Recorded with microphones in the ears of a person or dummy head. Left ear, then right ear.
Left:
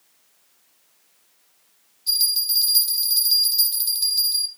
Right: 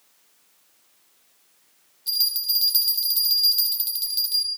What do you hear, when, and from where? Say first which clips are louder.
2.1 s a bell: left 2 dB; 10° right (ahead or behind), 5.5 m